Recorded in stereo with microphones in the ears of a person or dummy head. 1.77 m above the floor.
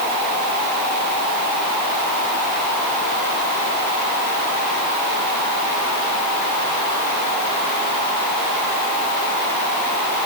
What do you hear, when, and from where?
Only background noise.